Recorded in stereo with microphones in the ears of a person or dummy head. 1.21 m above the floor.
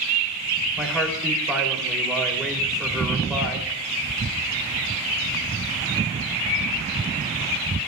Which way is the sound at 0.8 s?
Centre (ahead or behind).